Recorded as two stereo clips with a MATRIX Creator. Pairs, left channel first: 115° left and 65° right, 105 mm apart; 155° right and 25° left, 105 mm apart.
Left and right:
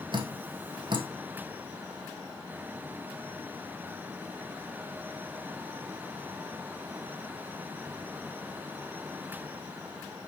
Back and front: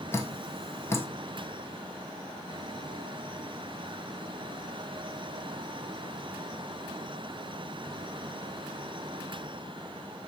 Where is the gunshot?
No gunshot in this recording.